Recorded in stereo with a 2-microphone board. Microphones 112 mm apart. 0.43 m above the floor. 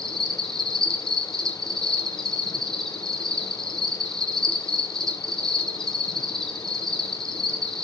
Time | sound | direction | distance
0.0 | an insect | 5° left (ahead or behind) | 1.6 m